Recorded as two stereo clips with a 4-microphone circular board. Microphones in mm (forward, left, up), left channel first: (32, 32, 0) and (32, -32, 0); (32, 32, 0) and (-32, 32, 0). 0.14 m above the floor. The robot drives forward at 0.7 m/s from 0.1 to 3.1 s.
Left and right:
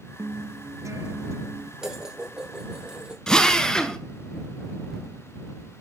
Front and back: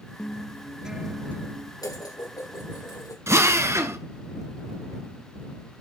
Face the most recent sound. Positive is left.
turn(degrees=165)